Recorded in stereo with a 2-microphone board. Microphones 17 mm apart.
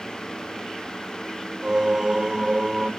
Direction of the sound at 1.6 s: 40° right (ahead or behind).